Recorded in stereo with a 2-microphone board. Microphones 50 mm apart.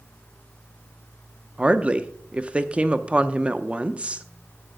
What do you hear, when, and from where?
1.6 s a woman speaking: 20° right (ahead or behind), 0.6 m